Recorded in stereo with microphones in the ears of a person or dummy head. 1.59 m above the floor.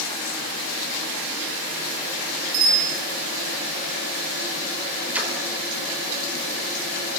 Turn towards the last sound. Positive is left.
turn(degrees=-10)  # may be behind; listen again after turning